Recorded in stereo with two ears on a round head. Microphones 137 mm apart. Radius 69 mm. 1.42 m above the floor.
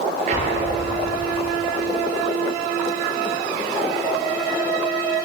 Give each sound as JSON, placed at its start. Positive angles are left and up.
{"t": 0.3, "sound": "an explosion", "side_deg": -50, "distance_m": 8.0}